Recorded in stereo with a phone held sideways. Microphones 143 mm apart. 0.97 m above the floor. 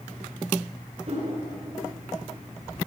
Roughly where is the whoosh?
Right.